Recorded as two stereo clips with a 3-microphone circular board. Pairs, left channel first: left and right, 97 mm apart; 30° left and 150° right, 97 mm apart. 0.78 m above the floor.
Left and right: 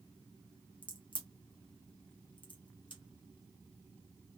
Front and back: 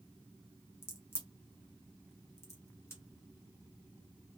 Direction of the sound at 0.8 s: 85° left.